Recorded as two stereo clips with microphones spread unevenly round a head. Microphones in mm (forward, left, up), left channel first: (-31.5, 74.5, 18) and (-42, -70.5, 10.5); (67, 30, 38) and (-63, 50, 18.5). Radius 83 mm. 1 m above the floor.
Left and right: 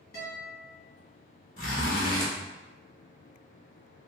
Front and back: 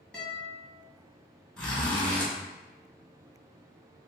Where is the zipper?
70° left, 1.4 m.